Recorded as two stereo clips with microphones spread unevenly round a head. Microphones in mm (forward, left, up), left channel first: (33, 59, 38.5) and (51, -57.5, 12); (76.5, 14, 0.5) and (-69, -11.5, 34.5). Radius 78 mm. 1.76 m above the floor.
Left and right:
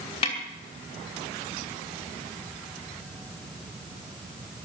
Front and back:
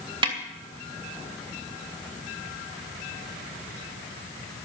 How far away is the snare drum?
About 2.5 m.